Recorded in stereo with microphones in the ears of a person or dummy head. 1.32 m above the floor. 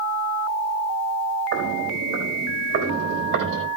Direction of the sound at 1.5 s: 70° right (ahead or behind).